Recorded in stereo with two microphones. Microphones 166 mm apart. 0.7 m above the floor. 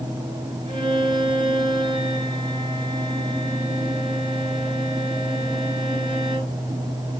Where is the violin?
30° right (ahead or behind), 5 m.